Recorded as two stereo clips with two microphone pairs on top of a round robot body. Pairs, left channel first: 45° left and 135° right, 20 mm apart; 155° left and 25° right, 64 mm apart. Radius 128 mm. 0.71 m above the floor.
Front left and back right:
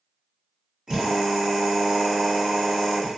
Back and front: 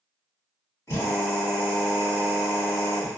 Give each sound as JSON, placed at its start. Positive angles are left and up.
{"t": 0.9, "sound": "a drill", "azimuth_deg": 175, "distance_m": 1.9}